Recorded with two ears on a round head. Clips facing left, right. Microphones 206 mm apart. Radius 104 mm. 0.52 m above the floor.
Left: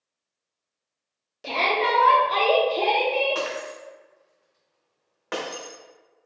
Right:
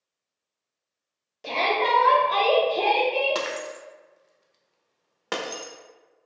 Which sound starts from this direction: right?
Breaking glass, at 3.4 s.